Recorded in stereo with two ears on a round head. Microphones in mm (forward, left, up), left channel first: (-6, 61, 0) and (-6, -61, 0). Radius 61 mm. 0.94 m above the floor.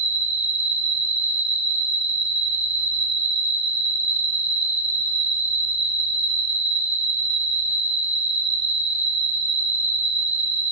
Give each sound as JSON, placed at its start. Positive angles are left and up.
{"t": 0.0, "sound": "an insect", "side_deg": -60, "distance_m": 3.5}